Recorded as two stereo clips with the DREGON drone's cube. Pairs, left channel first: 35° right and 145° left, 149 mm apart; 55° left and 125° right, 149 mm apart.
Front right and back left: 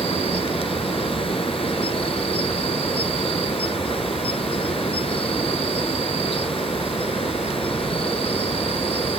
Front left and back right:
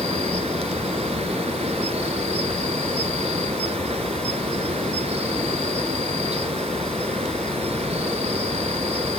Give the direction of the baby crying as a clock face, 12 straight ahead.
I don't hear a baby crying.